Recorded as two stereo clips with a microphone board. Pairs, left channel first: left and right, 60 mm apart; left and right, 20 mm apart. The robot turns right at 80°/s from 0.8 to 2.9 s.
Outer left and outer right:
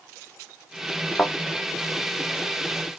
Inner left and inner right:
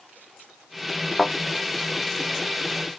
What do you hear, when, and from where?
1.2 s a thud: 20° left (ahead or behind), 1.4 m; by 1.3 s 30° left (ahead or behind), 1.4 m